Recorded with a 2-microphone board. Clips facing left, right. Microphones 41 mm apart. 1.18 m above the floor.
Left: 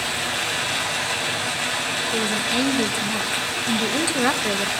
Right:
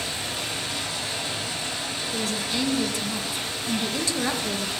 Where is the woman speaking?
30° left (ahead or behind), 1.3 m.